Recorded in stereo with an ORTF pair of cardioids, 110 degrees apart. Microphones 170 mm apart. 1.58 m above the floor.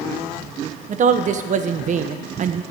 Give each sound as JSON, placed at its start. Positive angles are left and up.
{"t": 0.9, "sound": "a woman speaking", "azimuth_deg": -45, "distance_m": 1.2}